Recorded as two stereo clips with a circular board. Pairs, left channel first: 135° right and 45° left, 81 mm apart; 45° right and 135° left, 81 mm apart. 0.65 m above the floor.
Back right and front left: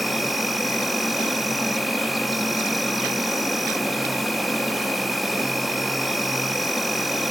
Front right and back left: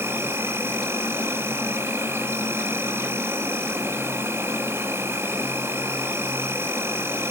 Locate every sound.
0.0 s an insect: 135° left, 0.8 m